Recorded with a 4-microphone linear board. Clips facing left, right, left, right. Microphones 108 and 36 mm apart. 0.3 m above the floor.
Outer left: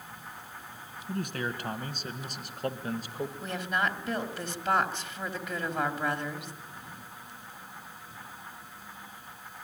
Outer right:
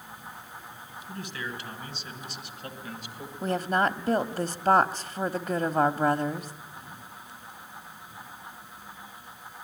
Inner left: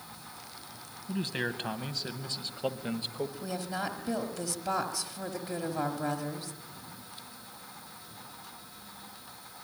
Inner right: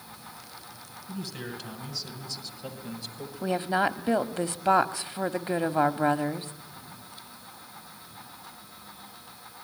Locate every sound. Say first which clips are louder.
1.1 s a man speaking: outer left 4 dB, inner left 5 dB; 45° left (ahead or behind), 2.5 m; by 3.3 s 35° left (ahead or behind), 1.5 m
3.4 s a woman speaking: outer right 7 dB, inner right 15 dB; 40° right (ahead or behind), 1.3 m